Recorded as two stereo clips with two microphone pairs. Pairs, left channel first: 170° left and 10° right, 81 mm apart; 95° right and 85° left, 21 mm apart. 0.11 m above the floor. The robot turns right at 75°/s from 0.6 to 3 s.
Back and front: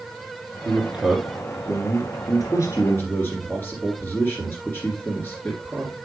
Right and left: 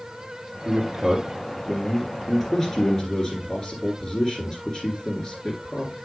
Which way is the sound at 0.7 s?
45° left.